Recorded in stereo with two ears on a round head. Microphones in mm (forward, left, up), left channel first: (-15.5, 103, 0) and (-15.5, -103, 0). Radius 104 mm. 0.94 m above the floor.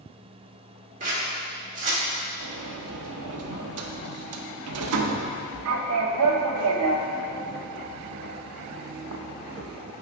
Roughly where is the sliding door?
Right.